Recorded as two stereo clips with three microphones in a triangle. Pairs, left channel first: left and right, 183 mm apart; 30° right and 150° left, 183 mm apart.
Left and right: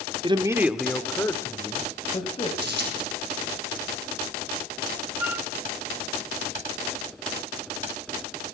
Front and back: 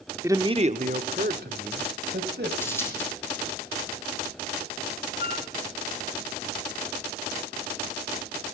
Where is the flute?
10° right, 1.9 m.